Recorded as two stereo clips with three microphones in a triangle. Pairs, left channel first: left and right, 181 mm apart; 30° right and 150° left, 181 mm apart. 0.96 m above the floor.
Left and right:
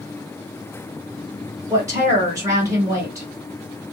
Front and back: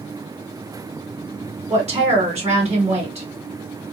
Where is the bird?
No bird in this recording.